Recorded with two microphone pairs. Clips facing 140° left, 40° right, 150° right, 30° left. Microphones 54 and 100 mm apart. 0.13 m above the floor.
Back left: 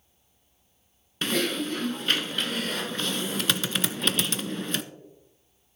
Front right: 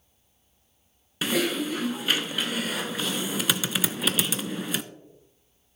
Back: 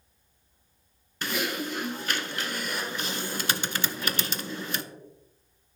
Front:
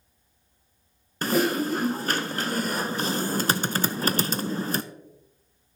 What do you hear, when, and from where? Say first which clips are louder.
1.2 s typing on a keyboard: front right 1 dB, front 8 dB; 40° left, 0.6 m